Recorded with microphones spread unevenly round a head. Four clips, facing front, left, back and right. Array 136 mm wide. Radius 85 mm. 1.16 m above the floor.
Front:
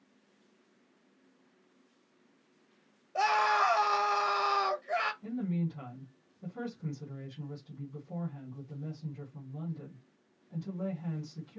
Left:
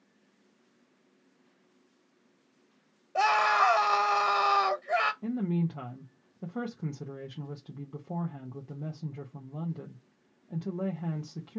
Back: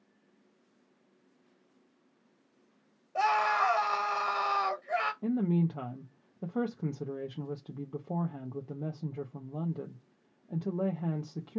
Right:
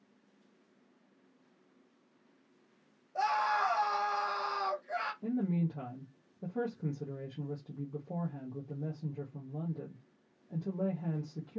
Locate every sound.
3.1 s a scream: 60° left, 1.1 m
5.2 s a woman speaking: 175° left, 0.9 m